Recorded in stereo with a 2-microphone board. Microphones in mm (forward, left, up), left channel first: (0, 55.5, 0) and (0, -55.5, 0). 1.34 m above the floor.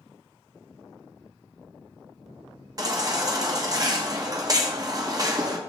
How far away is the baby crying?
About 1.1 m.